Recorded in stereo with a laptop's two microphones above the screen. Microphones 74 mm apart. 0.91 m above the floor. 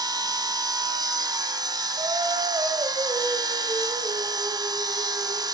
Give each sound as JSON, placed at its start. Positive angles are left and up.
{"t": 0.0, "sound": "a machine running", "side_deg": -70, "distance_m": 1.9}
{"t": 2.0, "sound": "singing", "side_deg": -85, "distance_m": 4.0}